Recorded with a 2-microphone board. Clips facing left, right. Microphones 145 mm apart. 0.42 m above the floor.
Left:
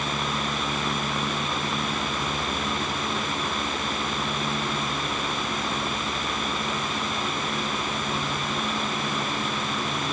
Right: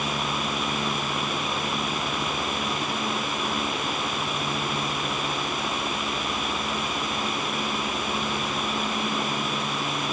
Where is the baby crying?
No baby crying in this recording.